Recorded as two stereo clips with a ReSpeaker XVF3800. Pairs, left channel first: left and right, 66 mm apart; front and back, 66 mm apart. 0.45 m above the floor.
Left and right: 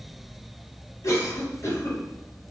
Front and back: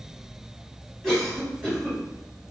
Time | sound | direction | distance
1.0 | a cough | 90° left | 1.4 m